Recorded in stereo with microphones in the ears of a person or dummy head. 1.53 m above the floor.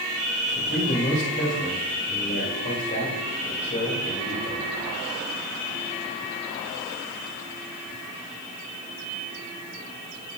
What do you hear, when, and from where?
0.6 s a man speaking: 40° left (ahead or behind), 3 m